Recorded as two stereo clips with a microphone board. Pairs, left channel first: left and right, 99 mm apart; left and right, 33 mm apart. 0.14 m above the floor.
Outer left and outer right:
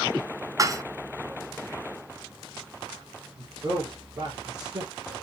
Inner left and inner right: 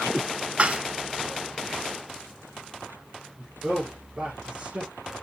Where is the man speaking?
40° right (ahead or behind), 4.5 m.